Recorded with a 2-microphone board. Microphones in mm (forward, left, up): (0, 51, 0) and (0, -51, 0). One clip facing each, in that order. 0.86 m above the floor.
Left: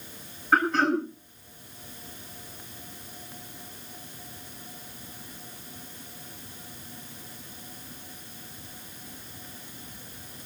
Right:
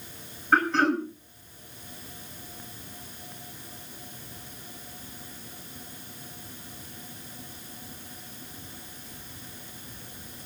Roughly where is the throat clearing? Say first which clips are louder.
Even; centre.